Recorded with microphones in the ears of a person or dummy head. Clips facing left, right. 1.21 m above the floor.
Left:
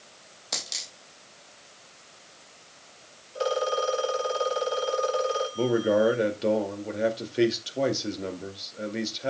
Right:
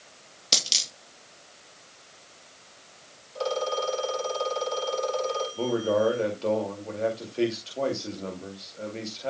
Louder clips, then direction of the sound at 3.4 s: Left 2 dB; 20° left (ahead or behind).